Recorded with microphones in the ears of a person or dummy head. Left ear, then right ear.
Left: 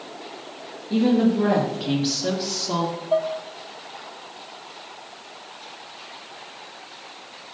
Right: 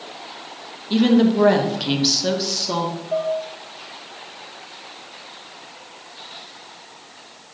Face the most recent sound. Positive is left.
turn(degrees=30)  # may be behind; listen again after turning